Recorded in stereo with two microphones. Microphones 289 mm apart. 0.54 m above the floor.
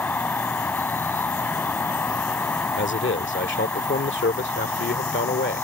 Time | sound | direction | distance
0.0 | an insect | 5° left (ahead or behind) | ?
2.8 | a man speaking | 40° left (ahead or behind) | ?